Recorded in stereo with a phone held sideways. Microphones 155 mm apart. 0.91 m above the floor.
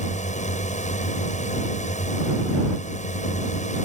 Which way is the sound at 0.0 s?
50° left (ahead or behind).